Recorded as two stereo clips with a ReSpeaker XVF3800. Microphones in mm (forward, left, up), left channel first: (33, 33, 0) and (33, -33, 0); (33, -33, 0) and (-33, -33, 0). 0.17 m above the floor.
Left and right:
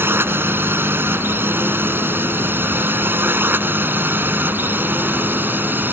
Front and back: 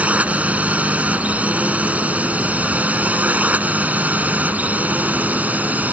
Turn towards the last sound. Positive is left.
turn(degrees=-130)